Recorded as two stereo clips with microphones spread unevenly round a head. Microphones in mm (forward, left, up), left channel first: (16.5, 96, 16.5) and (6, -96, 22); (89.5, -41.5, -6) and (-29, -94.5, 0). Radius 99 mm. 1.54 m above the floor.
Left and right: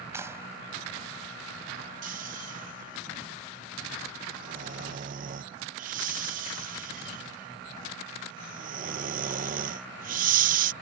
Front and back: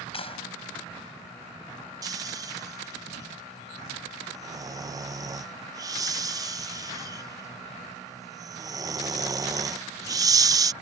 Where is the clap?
15° right.